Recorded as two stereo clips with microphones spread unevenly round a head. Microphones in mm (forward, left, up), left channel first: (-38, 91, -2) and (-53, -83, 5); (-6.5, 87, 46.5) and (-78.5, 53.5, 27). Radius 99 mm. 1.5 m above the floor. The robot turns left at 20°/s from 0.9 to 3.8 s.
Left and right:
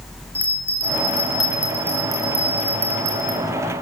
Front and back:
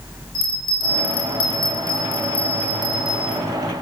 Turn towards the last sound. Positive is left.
turn(degrees=-55)